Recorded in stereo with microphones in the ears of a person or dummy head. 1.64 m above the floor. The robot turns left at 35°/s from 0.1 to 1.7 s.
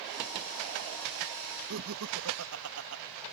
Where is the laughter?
70° right (ahead or behind).